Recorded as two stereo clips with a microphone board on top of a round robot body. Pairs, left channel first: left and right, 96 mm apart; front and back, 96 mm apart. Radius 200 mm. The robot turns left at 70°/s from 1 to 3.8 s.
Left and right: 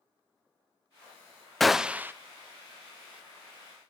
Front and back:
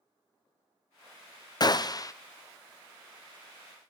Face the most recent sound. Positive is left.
turn(degrees=-150)